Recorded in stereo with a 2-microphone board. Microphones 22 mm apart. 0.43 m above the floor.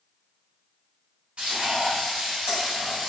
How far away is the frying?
About 1.7 m.